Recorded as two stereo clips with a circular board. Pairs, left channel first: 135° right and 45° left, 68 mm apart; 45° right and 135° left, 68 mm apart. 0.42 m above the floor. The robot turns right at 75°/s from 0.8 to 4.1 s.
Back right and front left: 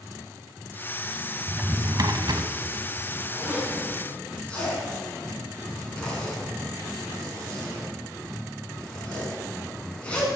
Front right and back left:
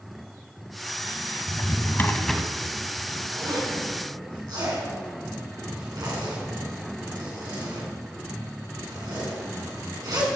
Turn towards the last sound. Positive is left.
turn(degrees=150)